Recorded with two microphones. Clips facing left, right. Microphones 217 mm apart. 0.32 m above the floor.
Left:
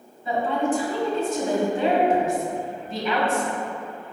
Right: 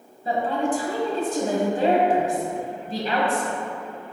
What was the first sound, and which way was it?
A woman speaking, 40° right (ahead or behind).